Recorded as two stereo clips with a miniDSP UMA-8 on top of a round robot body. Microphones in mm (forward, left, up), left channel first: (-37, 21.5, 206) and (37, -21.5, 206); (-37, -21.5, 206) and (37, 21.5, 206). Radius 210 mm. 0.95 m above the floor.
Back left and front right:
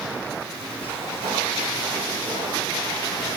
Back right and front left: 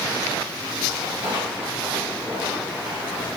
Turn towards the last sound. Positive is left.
turn(degrees=-45)